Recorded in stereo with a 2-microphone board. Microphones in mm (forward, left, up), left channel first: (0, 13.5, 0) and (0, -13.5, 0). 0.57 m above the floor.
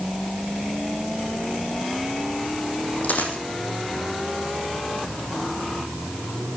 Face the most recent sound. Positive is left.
turn(degrees=70)  # may be behind; listen again after turning